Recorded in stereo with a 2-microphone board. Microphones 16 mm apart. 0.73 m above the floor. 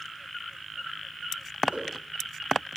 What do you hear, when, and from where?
1.7 s a whoosh: 85° right, 4 m